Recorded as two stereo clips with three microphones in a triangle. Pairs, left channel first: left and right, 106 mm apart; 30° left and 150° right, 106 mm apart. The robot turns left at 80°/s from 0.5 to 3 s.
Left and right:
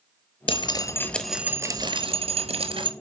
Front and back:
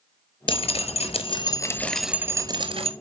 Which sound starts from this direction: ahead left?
Dripping, at 0.5 s.